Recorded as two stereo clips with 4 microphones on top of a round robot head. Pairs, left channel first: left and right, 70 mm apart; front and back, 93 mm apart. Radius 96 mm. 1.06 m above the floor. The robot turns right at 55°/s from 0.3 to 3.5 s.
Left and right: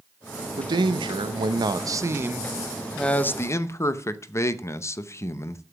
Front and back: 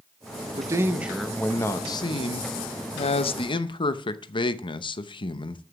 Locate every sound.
0.5 s a man speaking: 125° right, 0.8 m; by 5.6 s 40° left, 0.8 m